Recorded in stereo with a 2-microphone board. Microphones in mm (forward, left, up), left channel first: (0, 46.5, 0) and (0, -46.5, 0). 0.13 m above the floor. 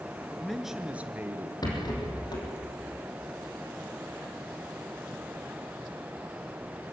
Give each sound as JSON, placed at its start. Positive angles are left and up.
{"t": 0.3, "sound": "a man speaking", "side_deg": 10, "distance_m": 2.0}
{"t": 1.6, "sound": "a rattle", "side_deg": 50, "distance_m": 5.5}